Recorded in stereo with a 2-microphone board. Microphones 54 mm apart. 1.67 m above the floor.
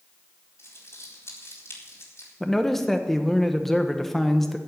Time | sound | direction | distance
0.6 | crumpling | 55° left (ahead or behind) | 4.5 m
2.4 | a man speaking | 5° left (ahead or behind) | 1.3 m